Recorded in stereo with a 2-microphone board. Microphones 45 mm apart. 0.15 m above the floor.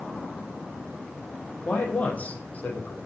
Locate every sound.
1.6 s a man speaking: 35° left (ahead or behind), 4.5 m